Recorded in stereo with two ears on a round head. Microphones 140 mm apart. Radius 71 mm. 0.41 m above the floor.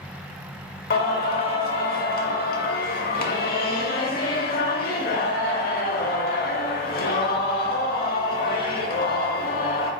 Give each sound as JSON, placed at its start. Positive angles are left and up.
{"t": 0.9, "sound": "singing", "side_deg": 60, "distance_m": 0.7}